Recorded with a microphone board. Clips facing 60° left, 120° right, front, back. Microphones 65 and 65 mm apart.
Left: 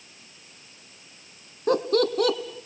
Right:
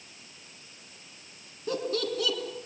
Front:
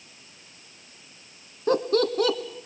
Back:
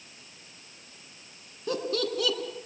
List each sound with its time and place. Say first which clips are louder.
1.7 s laughter: left 8 dB, front 7 dB; 40° left, 2 m